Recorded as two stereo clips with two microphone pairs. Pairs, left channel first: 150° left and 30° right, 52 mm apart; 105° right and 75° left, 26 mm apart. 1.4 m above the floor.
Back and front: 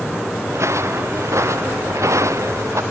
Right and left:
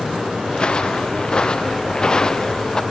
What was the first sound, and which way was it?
Footsteps, 55° right.